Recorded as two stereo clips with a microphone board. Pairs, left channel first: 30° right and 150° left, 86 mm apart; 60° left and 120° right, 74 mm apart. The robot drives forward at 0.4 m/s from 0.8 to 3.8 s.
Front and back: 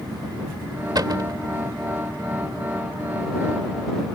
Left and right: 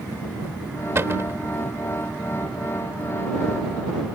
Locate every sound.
0.9 s a cupboard door: 175° right